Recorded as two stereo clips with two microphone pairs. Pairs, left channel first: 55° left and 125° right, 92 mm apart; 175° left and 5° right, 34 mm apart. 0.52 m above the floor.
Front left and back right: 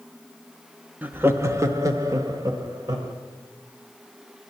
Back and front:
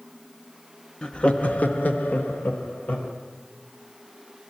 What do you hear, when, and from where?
1.0 s laughter: 165° right, 0.7 m; by 3.1 s 170° right, 2.5 m